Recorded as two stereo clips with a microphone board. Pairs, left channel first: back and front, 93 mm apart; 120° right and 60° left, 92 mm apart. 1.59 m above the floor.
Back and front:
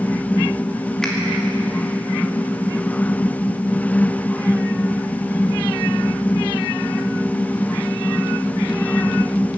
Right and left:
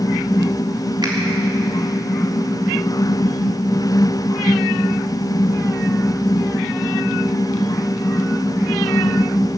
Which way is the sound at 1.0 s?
95° left.